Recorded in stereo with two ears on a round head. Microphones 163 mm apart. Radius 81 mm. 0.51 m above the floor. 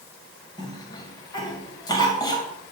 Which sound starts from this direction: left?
A cough, at 0.6 s.